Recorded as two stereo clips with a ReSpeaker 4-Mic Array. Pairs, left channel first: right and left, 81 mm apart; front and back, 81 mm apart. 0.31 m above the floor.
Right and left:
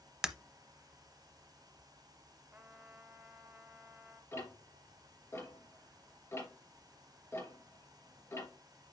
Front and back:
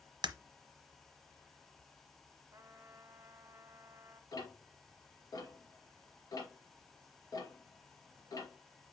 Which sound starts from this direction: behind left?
A trumpet, at 2.5 s.